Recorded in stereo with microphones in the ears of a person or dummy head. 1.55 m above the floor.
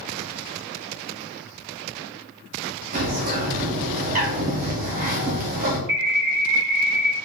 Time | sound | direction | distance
2.9 | a bird | 40° right (ahead or behind) | 0.8 m
5.9 | a bird | 55° right (ahead or behind) | 2 m